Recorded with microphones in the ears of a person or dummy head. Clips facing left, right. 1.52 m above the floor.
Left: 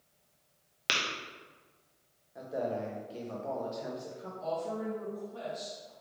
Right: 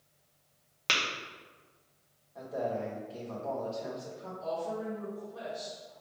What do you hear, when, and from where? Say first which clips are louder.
0.9 s tapping: right 1 dB; 10° left (ahead or behind), 0.7 m
2.4 s a man speaking: even; 20° left (ahead or behind), 1.0 m
4.4 s a woman speaking: even; 35° left (ahead or behind), 1.5 m